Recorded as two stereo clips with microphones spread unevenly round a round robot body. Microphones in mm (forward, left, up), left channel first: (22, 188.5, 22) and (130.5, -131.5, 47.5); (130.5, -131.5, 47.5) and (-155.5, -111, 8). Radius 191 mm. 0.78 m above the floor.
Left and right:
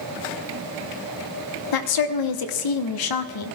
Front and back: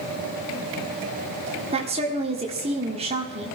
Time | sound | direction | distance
1.7 | a woman speaking | 105° left | 1.5 m